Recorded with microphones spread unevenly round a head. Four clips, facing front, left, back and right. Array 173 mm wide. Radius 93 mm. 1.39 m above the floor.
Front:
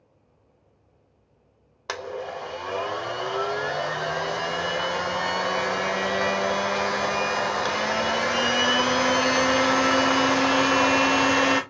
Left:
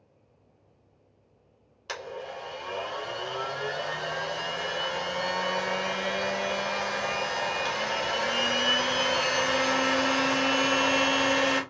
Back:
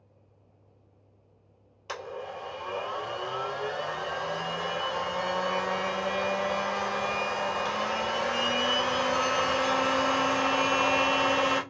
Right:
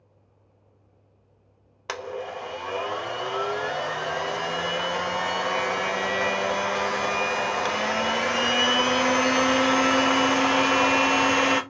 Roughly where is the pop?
No pop in this recording.